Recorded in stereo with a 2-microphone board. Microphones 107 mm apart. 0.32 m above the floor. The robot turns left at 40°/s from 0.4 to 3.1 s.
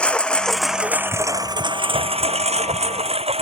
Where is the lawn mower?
10° left (ahead or behind); by 3.4 s 70° right (ahead or behind).